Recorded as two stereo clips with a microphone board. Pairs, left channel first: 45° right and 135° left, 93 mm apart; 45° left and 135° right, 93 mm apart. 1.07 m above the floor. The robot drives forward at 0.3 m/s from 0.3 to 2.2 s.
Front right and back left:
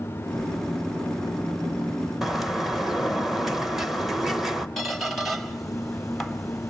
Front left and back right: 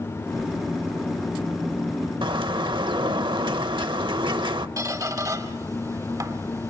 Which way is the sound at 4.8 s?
130° right.